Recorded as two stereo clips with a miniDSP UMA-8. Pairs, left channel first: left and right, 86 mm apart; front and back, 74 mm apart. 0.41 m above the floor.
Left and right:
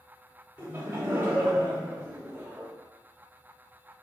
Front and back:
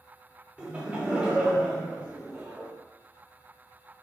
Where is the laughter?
120° right, 0.8 m.